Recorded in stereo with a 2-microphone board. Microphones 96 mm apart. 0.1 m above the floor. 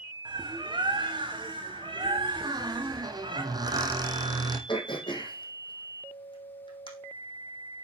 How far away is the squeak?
About 1.8 m.